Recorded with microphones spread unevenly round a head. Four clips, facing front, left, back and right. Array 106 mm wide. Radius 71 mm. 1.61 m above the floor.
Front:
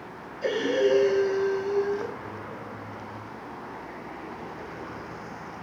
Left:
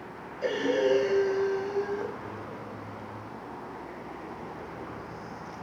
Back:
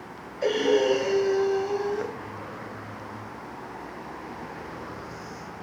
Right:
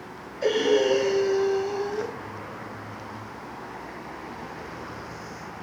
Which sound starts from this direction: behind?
Breathing, at 0.4 s.